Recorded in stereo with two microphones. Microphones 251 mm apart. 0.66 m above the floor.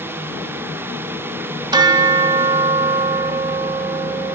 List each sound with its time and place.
1.7 s a bell: 15° right (ahead or behind), 0.6 m